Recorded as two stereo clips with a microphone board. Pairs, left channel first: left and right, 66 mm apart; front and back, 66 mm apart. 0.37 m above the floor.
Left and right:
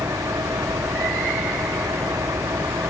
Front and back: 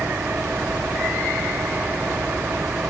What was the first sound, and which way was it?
An engine running, 120° right.